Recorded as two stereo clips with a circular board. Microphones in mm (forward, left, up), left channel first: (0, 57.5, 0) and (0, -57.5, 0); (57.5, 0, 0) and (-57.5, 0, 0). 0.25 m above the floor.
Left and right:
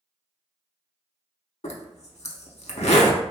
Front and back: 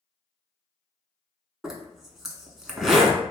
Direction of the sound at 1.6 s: 95° left.